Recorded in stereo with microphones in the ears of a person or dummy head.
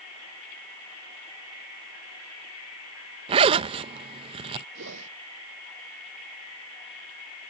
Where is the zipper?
30° right (ahead or behind).